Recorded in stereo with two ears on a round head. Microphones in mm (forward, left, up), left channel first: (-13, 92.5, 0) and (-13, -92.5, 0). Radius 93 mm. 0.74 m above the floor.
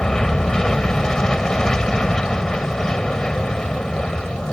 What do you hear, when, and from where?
0.0 s an aircraft: 5° left (ahead or behind)